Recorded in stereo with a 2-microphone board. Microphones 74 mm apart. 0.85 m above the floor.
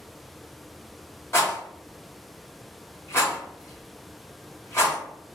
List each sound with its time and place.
1.3 s a rattle: 35° left (ahead or behind), 1.1 m